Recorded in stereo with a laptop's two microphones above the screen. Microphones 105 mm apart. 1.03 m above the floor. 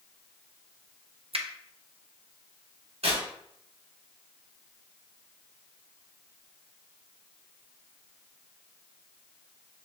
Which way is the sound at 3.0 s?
75° right (ahead or behind).